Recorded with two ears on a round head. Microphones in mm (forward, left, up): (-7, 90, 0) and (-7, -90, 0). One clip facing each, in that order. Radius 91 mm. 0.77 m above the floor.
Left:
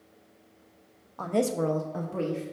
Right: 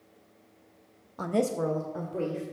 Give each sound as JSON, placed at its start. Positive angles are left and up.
{"t": 1.2, "sound": "a woman speaking", "side_deg": -25, "distance_m": 0.5}